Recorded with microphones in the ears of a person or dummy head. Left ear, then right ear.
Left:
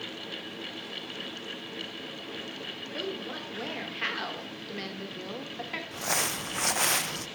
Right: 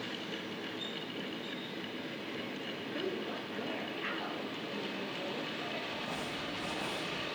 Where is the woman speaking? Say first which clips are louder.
Left 2 dB; 20° left (ahead or behind), 2.5 m; by 5.8 s 65° left (ahead or behind), 2.5 m.